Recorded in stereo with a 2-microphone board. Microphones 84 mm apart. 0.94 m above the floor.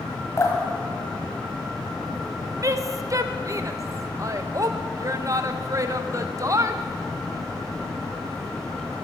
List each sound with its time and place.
0.4 s dripping: 40° left (ahead or behind), 2 m
2.6 s a woman speaking: 40° right (ahead or behind), 0.7 m